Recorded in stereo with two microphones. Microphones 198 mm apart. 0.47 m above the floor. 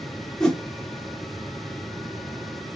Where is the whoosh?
5° left (ahead or behind), 0.5 m.